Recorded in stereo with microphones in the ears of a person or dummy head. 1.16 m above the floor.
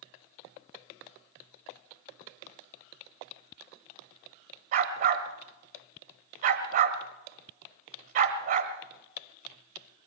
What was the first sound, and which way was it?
A dog barking, 40° right (ahead or behind).